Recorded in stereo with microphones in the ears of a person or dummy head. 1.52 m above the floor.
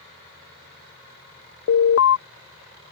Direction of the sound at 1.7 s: 65° left (ahead or behind).